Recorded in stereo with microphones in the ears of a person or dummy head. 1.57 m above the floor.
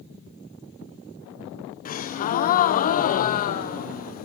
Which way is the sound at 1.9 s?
40° left (ahead or behind).